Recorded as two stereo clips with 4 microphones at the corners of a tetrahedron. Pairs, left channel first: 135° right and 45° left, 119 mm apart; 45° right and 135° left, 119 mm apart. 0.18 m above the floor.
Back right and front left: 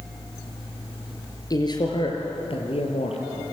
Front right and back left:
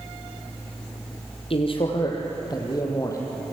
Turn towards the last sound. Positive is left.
turn(degrees=-110)